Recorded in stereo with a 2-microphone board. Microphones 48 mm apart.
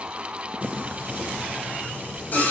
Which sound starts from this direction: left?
Singing, at 0.6 s.